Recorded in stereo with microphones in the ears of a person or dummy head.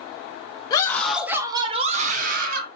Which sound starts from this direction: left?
A scream, at 0.7 s.